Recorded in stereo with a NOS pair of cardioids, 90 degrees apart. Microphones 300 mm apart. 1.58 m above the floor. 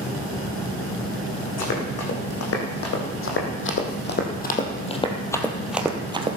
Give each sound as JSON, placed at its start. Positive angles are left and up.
{"t": 1.6, "sound": "running footsteps", "azimuth_deg": 60, "distance_m": 6.0}